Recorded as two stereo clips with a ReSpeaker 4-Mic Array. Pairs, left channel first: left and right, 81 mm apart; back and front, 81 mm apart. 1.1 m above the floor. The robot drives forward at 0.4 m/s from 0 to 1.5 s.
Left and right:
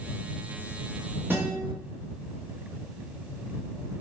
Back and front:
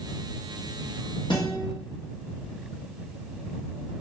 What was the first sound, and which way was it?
A guitar, 155° right.